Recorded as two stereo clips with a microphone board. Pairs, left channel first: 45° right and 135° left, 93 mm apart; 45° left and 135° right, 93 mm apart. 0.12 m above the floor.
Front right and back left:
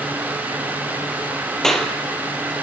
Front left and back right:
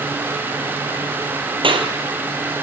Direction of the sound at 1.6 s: 130° right.